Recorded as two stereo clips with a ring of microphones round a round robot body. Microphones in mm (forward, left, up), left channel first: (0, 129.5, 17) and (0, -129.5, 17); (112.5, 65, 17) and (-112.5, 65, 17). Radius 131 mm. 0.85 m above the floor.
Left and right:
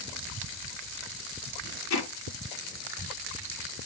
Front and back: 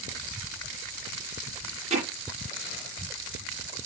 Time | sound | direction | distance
1.9 | hammering | 120° left | 7.5 m